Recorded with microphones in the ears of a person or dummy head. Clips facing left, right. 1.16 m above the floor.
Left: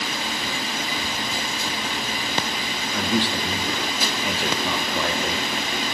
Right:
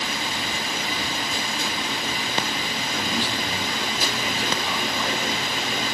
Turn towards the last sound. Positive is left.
turn(degrees=55)  # may be behind; listen again after turning